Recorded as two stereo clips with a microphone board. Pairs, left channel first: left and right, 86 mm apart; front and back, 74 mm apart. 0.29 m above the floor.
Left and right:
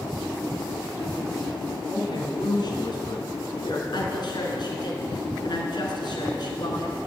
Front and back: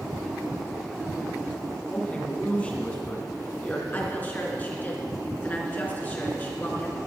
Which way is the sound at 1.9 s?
70° left.